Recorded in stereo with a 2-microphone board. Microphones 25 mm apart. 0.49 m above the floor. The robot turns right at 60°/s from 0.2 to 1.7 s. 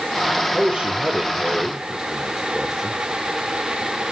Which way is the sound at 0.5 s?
80° right.